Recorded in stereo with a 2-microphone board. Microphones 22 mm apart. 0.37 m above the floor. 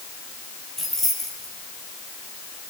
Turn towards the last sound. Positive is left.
turn(degrees=15)  # may be behind; listen again after turning